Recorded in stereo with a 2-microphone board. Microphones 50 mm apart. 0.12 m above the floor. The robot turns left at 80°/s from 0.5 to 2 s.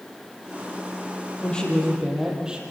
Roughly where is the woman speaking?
Ahead left.